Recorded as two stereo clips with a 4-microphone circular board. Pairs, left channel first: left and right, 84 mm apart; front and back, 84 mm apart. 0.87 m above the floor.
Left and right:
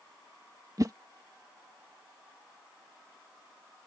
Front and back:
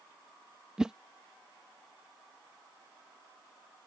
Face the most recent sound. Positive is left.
turn(degrees=-100)